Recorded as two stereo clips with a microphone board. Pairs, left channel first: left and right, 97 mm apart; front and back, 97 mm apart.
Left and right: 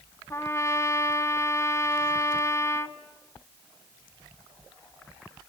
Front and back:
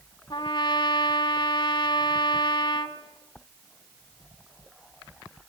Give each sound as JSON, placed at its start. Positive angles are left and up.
{"t": 0.3, "sound": "a trumpet", "azimuth_deg": 30, "distance_m": 2.0}